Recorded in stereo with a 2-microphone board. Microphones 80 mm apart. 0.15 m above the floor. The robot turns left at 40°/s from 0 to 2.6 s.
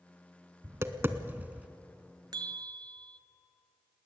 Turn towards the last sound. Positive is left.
turn(degrees=-65)  # may be behind; listen again after turning